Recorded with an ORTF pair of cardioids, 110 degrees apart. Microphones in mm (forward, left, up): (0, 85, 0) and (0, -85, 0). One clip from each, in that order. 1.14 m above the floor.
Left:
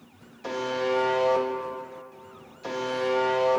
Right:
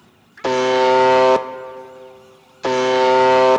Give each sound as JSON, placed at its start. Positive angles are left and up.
{"t": 0.4, "sound": "a buzzer", "azimuth_deg": -70, "distance_m": 0.7}